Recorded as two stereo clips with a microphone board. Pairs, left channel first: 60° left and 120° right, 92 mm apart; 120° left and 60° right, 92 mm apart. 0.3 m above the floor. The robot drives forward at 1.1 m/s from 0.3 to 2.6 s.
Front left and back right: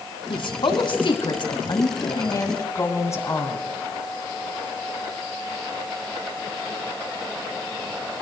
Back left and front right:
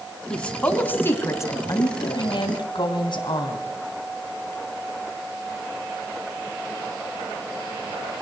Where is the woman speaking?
40° left, 2.5 m; by 3.6 s 115° left, 2 m.